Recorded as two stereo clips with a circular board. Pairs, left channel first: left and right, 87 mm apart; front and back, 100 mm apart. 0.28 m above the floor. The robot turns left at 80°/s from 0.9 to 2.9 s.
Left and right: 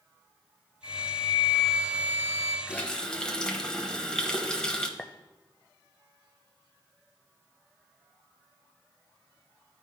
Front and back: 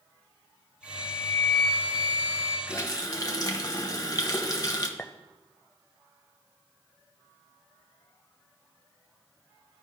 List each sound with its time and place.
0.8 s a flute: 70° left, 1.0 m; by 2.6 s 65° right, 1.0 m
2.7 s a running tap: 30° left, 1.0 m; by 4.9 s 15° left, 1.0 m
5.0 s a clink: 30° left, 0.5 m